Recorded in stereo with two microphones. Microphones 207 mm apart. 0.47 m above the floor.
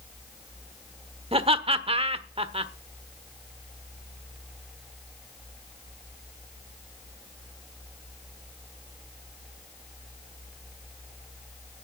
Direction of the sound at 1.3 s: 30° right (ahead or behind).